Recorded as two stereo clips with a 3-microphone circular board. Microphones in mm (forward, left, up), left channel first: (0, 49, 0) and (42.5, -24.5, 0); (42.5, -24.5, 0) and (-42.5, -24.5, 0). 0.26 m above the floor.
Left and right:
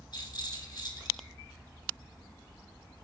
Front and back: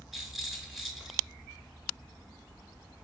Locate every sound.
0.1 s a rattle: 90° left, 3.5 m